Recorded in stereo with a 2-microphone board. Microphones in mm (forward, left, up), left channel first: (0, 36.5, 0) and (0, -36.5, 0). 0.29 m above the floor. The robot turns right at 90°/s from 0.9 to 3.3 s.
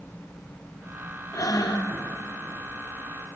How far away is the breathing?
About 1.6 m.